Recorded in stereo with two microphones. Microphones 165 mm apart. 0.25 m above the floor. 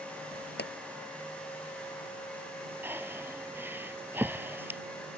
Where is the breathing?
10° right (ahead or behind).